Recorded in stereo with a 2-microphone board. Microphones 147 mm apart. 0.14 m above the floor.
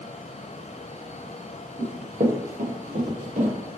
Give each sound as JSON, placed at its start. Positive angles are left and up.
{"t": 1.8, "sound": "running footsteps", "side_deg": -25, "distance_m": 1.3}